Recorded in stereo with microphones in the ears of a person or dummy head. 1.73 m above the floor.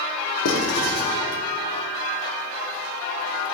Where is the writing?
65° left (ahead or behind), 3 m.